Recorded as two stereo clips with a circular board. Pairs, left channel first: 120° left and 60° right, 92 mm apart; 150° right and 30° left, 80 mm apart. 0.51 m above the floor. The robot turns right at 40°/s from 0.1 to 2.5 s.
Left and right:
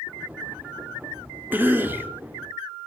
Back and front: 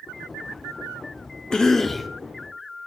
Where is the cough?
90° right, 0.7 m; by 2.1 s 65° right, 0.7 m.